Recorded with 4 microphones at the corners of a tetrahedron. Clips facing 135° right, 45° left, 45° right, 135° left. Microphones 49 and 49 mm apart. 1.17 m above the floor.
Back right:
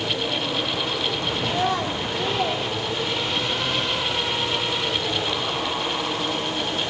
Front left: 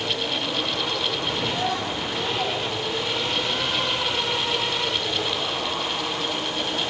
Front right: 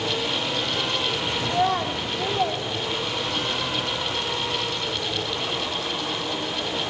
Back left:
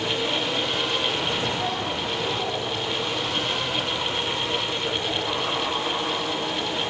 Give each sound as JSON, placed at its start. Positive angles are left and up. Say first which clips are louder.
{"t": 1.4, "sound": "a child speaking", "louder": "back right 5 dB, front right 4 dB", "azimuth_deg": -90, "distance_m": 2.5}